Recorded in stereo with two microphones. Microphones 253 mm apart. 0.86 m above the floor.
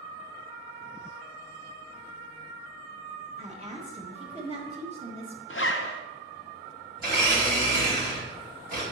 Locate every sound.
3.4 s a woman speaking: 25° right (ahead or behind), 1.3 m
5.5 s a zipper: 55° left (ahead or behind), 0.6 m
7.0 s a blender: 40° right (ahead or behind), 2.5 m